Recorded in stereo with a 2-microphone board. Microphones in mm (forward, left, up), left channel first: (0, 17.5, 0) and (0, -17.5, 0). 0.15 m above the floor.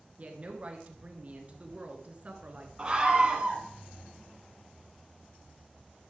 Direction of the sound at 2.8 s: 20° right (ahead or behind).